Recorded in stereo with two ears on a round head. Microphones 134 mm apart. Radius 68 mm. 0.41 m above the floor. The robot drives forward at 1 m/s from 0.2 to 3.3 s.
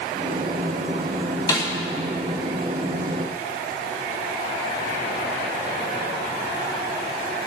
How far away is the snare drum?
About 2.5 m.